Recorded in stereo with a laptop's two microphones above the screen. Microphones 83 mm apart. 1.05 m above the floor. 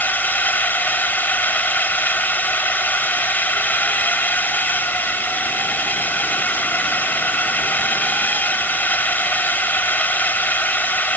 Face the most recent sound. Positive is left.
turn(degrees=20)  # may be behind; listen again after turning